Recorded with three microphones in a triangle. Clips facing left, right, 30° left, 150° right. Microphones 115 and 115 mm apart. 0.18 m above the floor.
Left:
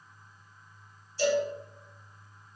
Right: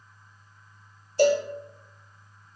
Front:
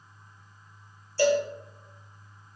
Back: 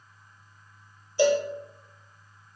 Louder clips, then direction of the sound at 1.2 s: Right 6 dB, back 1 dB; 75° right.